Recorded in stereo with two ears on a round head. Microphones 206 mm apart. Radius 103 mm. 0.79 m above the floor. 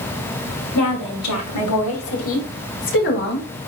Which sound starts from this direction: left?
A woman speaking, at 0.8 s.